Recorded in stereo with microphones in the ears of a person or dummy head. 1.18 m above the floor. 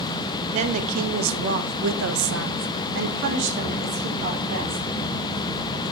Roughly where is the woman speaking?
Right.